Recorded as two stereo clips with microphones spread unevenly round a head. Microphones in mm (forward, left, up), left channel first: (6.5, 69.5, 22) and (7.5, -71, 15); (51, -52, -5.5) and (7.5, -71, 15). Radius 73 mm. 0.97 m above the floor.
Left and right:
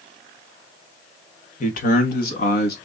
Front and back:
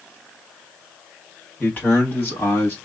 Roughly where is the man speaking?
Ahead left.